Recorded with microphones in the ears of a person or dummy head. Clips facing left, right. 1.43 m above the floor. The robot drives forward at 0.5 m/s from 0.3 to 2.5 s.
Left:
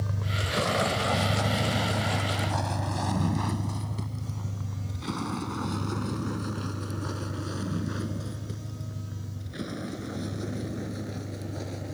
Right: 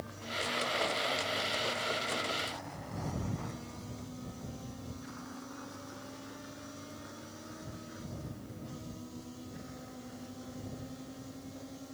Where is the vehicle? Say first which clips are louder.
Left 5 dB; 70° left (ahead or behind); by 11.9 s 90° left.